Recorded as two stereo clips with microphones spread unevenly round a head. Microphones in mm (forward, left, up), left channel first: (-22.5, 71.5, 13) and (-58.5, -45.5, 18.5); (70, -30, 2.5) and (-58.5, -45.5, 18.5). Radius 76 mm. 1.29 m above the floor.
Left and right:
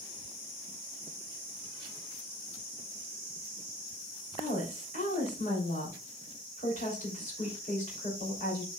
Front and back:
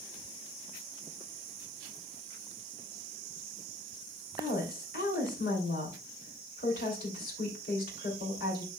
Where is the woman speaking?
30° left, 3.5 m.